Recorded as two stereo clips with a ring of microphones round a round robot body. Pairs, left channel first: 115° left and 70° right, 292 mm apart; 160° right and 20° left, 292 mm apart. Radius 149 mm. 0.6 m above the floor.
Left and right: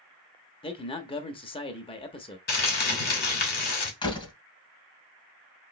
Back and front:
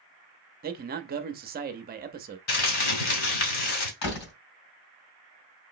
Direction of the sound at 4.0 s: 175° right.